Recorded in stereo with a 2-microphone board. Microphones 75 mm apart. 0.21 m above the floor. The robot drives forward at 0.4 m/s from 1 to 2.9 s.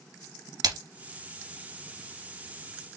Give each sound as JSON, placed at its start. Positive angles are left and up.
{"t": 0.6, "sound": "a splash", "side_deg": -60, "distance_m": 2.0}